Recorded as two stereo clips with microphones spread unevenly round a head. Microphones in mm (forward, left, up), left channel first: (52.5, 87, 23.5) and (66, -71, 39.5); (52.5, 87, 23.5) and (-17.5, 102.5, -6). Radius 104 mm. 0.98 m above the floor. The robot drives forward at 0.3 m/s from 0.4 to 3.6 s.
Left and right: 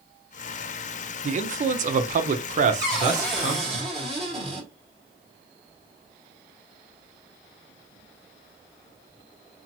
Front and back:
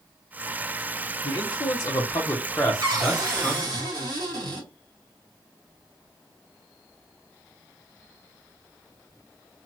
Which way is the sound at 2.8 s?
175° right.